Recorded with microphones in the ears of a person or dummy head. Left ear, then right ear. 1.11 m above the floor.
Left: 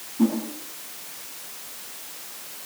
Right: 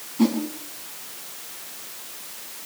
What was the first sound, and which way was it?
A whoosh, 35° right (ahead or behind).